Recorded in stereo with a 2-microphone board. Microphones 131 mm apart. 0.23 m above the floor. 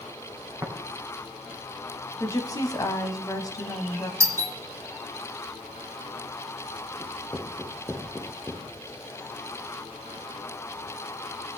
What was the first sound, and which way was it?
Tapping, 25° right (ahead or behind).